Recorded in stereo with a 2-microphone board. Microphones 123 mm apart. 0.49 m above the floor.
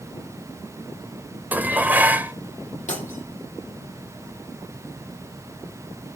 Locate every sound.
1.5 s dishes clattering: 15° right (ahead or behind), 1.0 m
2.9 s breaking glass: 90° left, 8.5 m